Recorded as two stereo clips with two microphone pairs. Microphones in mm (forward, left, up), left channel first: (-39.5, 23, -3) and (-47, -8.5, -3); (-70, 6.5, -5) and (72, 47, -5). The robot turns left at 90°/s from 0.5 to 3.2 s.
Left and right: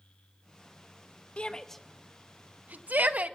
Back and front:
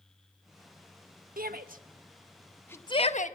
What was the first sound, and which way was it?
A shout, 30° left.